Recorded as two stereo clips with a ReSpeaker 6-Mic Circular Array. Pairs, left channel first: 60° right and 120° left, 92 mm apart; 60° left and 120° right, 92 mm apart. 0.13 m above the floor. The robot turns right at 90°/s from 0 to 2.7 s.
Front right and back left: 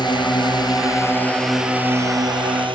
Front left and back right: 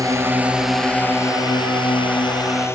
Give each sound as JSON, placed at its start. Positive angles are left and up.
{"t": 0.0, "sound": "a drone", "azimuth_deg": -80}